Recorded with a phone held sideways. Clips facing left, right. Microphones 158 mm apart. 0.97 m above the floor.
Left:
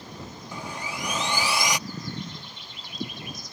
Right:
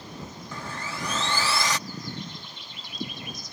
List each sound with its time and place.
0.5 s sawing: 15° left (ahead or behind)